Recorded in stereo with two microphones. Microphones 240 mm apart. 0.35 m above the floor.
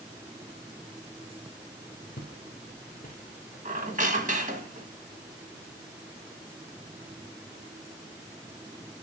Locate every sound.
2.2 s footsteps: 45° left (ahead or behind), 2.5 m; by 3.4 s 25° left (ahead or behind), 3.5 m
3.6 s a squeak: 30° right (ahead or behind), 2.0 m